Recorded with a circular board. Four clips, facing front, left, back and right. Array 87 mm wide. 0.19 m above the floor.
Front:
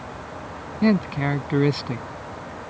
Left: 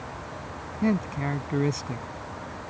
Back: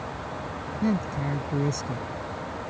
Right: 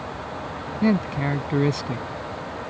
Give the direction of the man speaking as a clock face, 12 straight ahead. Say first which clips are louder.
Right 4 dB, front 7 dB; 1 o'clock.